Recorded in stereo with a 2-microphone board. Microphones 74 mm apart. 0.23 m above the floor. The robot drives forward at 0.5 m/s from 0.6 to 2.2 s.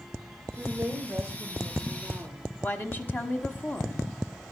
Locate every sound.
0.6 s a woman speaking: 10° right (ahead or behind), 5 m
2.6 s a woman speaking: 25° left (ahead or behind), 1.4 m